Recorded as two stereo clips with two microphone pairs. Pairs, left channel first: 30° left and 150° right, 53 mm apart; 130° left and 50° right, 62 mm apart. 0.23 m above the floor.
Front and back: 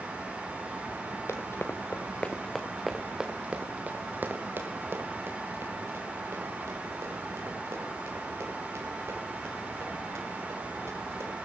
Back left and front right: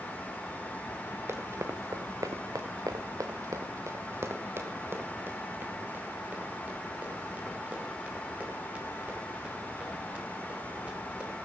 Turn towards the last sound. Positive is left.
turn(degrees=-125)